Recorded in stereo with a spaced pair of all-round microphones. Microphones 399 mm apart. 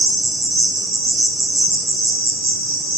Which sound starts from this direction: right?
An insect, at 0.0 s.